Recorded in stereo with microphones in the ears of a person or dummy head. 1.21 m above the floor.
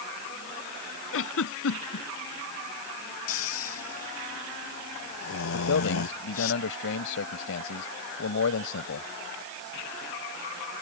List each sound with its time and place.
1.1 s a giggle: 75° left (ahead or behind)
3.3 s snoring: 90° left
5.5 s a man speaking: 70° left (ahead or behind)